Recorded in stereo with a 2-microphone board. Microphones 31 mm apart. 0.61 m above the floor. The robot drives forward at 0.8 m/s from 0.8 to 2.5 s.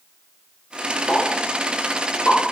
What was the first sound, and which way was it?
A pop, 60° left (ahead or behind).